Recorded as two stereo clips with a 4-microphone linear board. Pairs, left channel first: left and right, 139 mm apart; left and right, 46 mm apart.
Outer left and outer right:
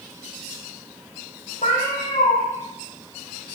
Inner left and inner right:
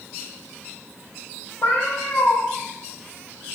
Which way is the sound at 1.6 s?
60° left (ahead or behind).